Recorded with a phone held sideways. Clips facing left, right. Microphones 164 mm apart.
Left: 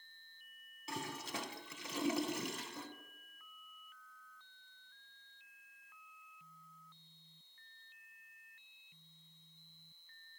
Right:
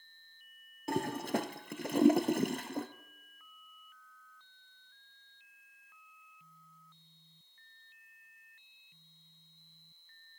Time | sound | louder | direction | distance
0.9 | a toilet flushing | right 11 dB | 55° right (ahead or behind) | 0.8 m